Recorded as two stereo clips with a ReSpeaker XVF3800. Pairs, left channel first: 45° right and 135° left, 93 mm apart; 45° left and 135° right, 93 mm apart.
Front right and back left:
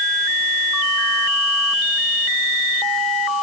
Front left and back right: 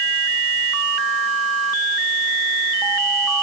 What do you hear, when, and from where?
Only background noise.